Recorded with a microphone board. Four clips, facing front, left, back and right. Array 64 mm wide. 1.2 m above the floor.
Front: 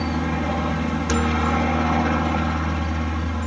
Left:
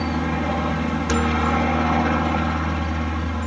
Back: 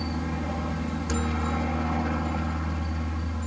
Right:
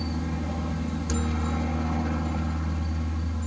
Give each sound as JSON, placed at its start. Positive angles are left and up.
{"t": 0.0, "sound": "a helicopter", "azimuth_deg": 55}